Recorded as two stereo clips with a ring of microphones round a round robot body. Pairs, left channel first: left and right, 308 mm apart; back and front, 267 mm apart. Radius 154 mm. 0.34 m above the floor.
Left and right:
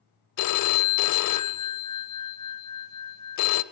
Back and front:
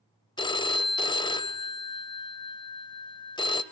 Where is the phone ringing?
110° left, 0.8 m.